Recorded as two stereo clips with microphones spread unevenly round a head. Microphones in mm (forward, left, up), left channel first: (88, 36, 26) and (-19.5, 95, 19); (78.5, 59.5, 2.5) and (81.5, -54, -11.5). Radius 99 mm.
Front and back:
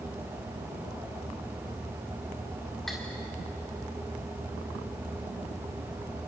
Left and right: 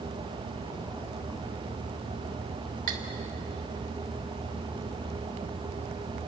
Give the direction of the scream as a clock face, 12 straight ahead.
No scream in this recording.